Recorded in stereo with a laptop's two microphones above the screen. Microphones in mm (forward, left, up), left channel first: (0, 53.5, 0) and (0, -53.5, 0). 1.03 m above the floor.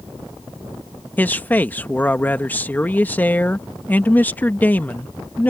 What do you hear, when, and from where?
1.2 s a man speaking: 15° left (ahead or behind)